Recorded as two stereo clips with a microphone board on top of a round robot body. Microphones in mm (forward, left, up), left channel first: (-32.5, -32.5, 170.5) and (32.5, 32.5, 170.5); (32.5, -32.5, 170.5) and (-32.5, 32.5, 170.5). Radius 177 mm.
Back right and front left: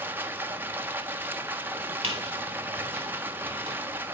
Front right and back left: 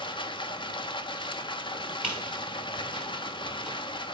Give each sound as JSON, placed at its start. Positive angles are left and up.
{"t": 0.0, "sound": "running water", "azimuth_deg": -20, "distance_m": 1.5}
{"t": 2.0, "sound": "a squeak", "azimuth_deg": 60, "distance_m": 0.6}